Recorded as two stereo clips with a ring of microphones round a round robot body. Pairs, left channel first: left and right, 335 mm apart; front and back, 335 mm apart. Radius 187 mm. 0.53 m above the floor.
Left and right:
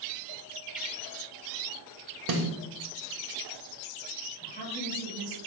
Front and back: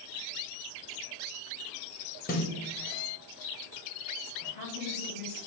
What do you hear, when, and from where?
2.3 s a snare drum: 70° right, 1.4 m
4.4 s a woman speaking: 25° left, 3 m